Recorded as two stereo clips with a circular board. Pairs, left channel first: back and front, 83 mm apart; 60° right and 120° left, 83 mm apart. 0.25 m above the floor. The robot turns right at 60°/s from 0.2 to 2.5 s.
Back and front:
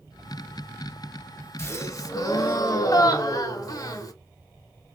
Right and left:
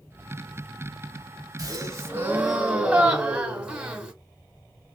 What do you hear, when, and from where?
1.6 s a gasp: 140° left, 0.9 m; by 4.1 s 170° right, 0.9 m